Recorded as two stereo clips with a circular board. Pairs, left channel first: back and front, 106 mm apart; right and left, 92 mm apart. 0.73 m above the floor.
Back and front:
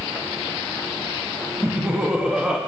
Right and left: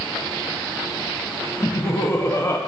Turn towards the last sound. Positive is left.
turn(degrees=-75)